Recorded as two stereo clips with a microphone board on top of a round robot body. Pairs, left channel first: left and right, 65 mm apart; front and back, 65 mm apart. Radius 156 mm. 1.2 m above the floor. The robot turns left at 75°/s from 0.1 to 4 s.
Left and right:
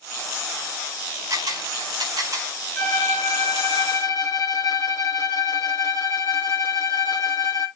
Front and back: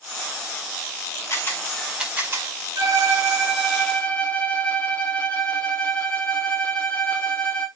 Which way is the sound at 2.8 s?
160° left.